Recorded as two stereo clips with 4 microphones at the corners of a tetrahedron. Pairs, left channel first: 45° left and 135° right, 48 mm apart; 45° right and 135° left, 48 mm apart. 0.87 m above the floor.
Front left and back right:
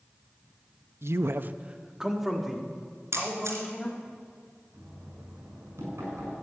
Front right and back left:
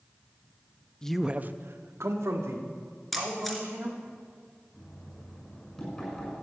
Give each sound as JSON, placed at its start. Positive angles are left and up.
{"t": 1.0, "sound": "a man speaking", "azimuth_deg": -115, "distance_m": 0.7}
{"t": 3.1, "sound": "a camera shutter", "azimuth_deg": -130, "distance_m": 2.5}
{"t": 4.7, "sound": "knocking", "azimuth_deg": -125, "distance_m": 6.5}